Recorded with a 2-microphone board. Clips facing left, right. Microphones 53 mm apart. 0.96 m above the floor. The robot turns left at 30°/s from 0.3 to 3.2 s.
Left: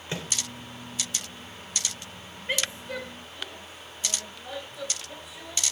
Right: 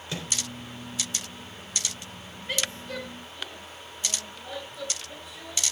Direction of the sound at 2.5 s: 25° left (ahead or behind).